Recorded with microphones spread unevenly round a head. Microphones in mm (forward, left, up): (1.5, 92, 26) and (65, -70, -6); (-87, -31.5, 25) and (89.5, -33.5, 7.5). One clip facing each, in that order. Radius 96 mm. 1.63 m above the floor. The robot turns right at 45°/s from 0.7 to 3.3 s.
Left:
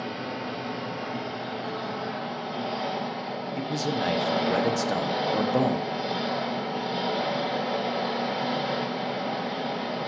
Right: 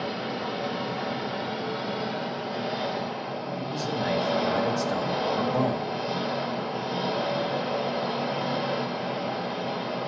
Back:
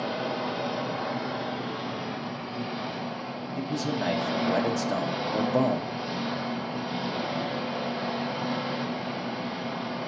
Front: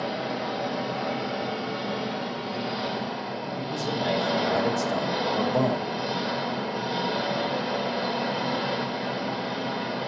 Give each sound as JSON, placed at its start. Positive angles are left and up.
{"t": 0.0, "sound": "an engine running", "azimuth_deg": -80, "distance_m": 1.8}
{"t": 3.6, "sound": "a man speaking", "azimuth_deg": 115, "distance_m": 0.7}